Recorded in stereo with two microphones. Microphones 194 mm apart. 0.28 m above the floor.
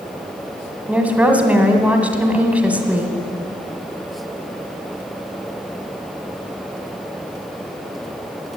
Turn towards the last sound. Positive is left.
turn(degrees=-5)  # may be behind; listen again after turning